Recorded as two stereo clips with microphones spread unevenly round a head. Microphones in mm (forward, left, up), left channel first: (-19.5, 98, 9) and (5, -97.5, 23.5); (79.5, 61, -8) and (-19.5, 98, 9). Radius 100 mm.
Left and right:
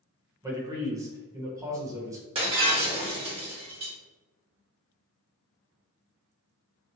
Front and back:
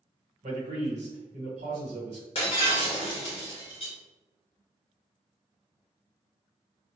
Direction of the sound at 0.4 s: 155° right.